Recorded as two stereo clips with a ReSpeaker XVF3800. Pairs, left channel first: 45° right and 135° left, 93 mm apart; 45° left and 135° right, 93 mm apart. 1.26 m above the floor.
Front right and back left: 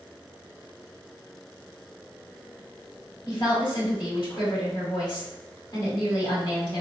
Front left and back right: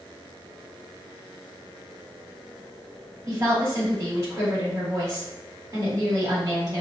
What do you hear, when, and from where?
3.3 s a woman speaking: 80° right, 1.9 m